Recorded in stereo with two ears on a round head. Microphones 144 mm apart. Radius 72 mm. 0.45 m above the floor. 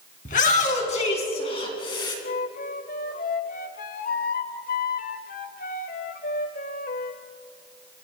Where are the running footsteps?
I don't hear running footsteps.